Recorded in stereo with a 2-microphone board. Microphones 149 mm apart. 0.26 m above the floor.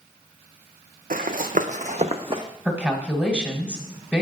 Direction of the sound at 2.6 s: 10° right (ahead or behind).